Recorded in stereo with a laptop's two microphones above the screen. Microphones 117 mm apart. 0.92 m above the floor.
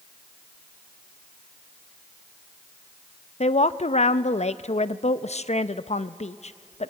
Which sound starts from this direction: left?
A woman speaking, at 3.4 s.